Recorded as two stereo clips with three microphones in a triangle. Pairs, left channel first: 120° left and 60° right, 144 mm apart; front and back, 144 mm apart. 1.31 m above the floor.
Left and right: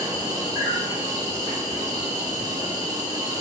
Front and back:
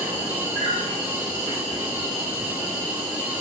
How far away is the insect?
About 1.3 m.